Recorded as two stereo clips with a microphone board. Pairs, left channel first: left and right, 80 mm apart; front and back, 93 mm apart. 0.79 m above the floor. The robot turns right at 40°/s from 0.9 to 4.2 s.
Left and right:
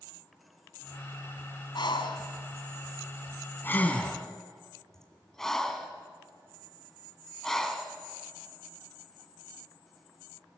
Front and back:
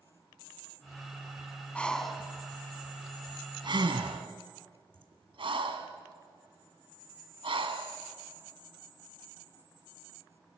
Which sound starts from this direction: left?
Breathing, at 1.8 s.